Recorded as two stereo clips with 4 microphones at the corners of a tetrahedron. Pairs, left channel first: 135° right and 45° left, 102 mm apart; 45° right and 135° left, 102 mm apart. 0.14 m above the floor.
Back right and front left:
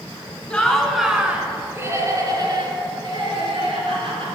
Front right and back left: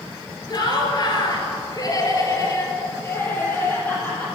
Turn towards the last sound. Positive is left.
turn(degrees=25)